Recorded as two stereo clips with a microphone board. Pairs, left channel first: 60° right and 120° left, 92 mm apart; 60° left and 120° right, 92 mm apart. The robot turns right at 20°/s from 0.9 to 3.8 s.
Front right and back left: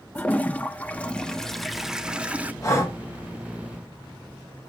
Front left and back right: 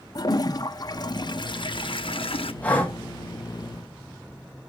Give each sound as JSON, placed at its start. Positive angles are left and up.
{"t": 0.1, "sound": "a toilet flushing", "azimuth_deg": 15, "distance_m": 0.5}
{"t": 2.6, "sound": "breathing", "azimuth_deg": -10, "distance_m": 1.5}